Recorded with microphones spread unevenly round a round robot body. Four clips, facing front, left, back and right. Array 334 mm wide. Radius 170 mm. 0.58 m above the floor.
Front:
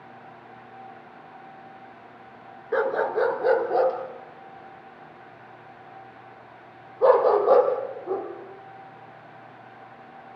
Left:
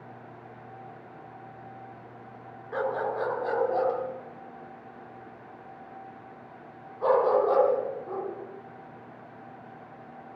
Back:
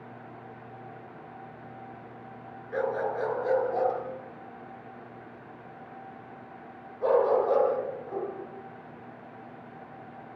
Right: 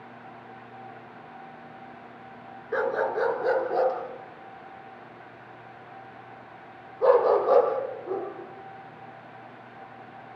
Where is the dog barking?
15° right, 4 m.